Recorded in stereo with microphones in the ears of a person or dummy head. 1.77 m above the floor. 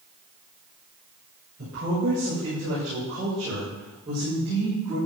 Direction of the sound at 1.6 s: 45° right (ahead or behind).